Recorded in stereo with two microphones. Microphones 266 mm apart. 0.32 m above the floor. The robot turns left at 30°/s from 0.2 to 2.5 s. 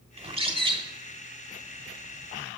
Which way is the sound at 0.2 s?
25° right (ahead or behind).